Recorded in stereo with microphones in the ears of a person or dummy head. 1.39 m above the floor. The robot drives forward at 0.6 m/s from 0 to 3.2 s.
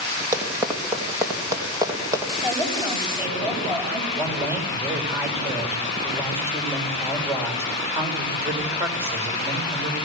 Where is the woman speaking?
15° right (ahead or behind), 9.5 m.